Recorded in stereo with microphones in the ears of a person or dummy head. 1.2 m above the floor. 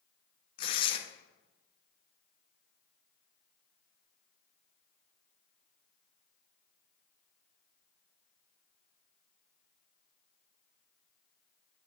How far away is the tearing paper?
About 0.6 m.